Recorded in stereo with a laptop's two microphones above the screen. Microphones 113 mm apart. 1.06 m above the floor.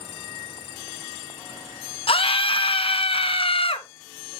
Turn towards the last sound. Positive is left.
turn(degrees=55)  # may be behind; listen again after turning